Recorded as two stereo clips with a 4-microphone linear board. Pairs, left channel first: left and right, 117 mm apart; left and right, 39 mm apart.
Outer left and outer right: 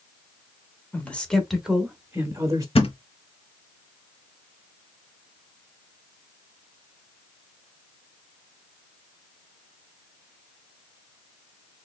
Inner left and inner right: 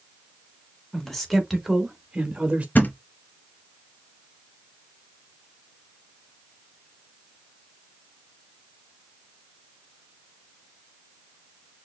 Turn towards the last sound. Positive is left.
turn(degrees=55)  # may be behind; listen again after turning